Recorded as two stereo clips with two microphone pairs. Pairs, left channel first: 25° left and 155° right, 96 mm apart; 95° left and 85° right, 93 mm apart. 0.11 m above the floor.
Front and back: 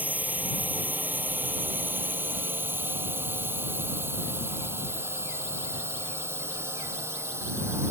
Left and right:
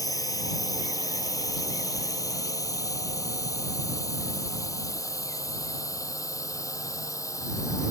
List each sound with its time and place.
0.0 s a drone: 135° left; by 7.9 s 145° left